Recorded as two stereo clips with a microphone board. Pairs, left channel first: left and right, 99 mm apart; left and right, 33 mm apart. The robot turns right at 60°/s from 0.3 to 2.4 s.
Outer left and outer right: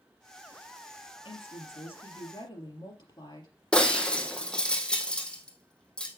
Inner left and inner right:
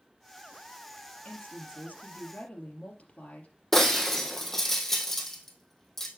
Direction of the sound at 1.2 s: 60° left.